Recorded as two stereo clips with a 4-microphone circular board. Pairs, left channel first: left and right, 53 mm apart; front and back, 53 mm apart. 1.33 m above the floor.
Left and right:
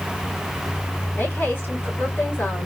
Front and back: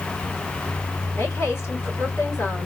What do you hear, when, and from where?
1.2 s a woman speaking: 40° left, 3.5 m